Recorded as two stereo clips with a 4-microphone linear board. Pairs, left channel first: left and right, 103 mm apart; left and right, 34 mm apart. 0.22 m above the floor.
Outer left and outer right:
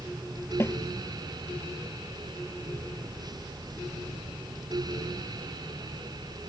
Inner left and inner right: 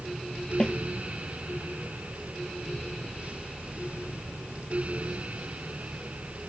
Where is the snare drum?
25° left (ahead or behind).